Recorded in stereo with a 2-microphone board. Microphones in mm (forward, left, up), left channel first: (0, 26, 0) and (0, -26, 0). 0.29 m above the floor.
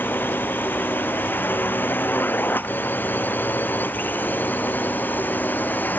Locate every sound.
0.0 s a drone: 40° left (ahead or behind); by 6.0 s 35° left (ahead or behind)